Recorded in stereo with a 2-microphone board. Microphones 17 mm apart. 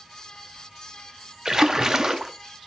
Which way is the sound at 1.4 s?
30° right (ahead or behind).